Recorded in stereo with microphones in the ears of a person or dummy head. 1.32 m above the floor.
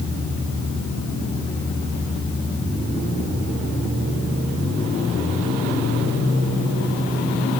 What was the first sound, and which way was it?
Only background noise.